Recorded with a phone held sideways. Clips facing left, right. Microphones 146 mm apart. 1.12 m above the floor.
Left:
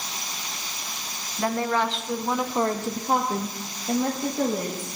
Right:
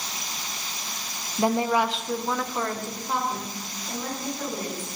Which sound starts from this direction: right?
A woman speaking, at 1.4 s.